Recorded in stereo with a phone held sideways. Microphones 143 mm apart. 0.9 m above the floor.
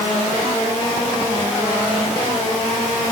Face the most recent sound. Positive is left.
No sound to turn to.